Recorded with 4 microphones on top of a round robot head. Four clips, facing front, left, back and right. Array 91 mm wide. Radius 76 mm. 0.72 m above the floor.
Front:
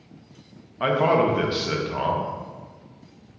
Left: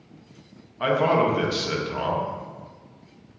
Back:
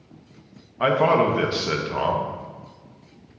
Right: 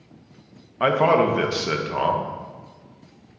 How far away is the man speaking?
About 1.0 m.